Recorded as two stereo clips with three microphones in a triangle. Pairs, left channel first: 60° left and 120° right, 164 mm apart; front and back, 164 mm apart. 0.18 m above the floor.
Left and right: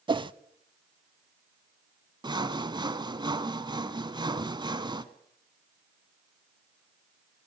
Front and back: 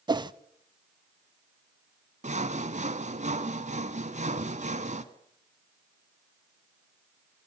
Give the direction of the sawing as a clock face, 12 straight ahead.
6 o'clock.